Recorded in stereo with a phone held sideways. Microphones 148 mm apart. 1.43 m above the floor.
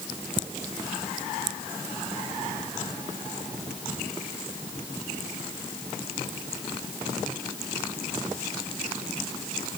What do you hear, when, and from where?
Only background noise.